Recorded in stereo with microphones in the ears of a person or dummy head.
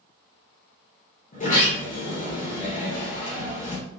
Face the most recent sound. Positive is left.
turn(degrees=40)  # may be behind; listen again after turning